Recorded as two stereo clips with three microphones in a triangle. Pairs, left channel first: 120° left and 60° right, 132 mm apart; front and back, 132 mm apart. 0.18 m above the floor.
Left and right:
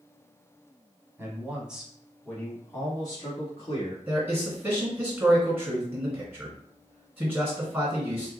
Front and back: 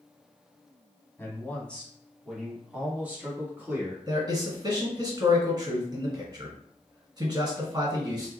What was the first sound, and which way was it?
A man speaking, 45° right.